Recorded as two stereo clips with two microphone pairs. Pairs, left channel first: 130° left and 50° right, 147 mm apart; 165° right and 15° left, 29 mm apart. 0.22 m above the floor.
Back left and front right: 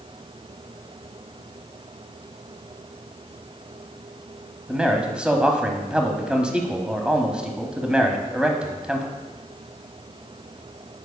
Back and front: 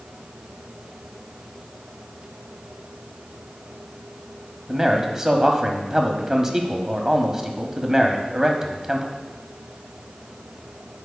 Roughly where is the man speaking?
Ahead.